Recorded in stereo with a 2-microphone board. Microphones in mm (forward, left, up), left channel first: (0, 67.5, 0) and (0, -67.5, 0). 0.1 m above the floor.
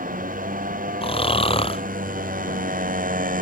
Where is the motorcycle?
75° right (ahead or behind).